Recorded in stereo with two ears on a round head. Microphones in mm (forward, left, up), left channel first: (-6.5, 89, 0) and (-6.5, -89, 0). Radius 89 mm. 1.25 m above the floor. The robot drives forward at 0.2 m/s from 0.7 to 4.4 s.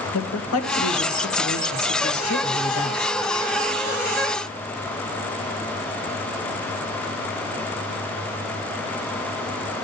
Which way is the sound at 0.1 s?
80° left.